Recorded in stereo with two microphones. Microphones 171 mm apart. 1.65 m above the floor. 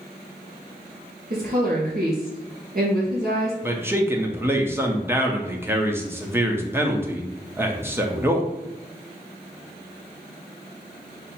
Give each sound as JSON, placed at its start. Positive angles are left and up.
{"t": 1.3, "sound": "a woman speaking", "side_deg": -55, "distance_m": 2.5}
{"t": 3.6, "sound": "a man speaking", "side_deg": -15, "distance_m": 0.8}